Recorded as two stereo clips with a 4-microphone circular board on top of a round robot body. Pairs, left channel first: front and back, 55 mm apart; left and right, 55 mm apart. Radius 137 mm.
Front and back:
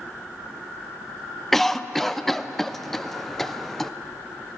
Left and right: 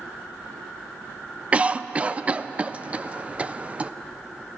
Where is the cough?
75° right, 0.6 m.